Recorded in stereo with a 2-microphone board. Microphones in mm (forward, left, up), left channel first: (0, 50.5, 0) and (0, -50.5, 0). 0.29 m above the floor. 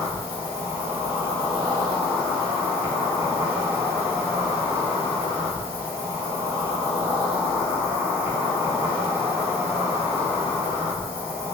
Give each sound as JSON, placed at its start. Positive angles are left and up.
{"t": 0.0, "sound": "an insect", "side_deg": -25, "distance_m": 1.0}